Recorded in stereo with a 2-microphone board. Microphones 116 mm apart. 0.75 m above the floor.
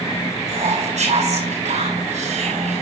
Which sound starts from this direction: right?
Whispering, at 0.5 s.